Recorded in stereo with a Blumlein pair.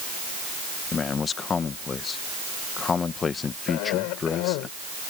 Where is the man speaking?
20° left.